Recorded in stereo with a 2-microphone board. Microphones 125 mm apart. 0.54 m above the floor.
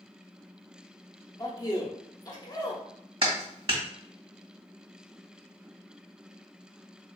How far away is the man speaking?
About 0.9 m.